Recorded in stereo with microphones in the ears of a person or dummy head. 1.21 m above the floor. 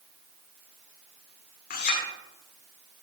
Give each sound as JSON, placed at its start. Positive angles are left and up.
{"t": 1.7, "sound": "a clink", "side_deg": 50, "distance_m": 2.0}